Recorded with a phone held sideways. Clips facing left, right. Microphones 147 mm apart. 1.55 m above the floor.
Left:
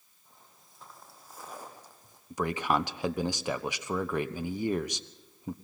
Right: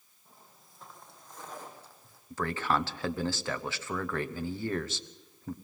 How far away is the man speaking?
About 1.0 m.